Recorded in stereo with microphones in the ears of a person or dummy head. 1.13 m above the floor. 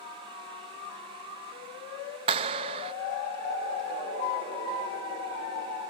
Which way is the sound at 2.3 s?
30° right (ahead or behind).